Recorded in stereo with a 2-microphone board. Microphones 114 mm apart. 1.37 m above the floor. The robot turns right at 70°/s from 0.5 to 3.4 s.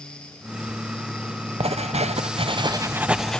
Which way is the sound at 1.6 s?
115° right.